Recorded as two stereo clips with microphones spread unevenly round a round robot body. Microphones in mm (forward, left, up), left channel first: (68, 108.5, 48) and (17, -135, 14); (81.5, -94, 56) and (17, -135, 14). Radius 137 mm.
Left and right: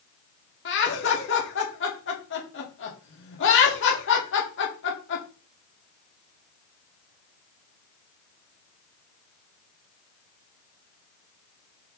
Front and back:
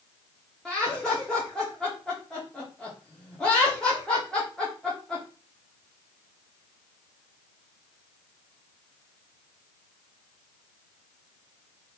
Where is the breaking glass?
I don't hear breaking glass.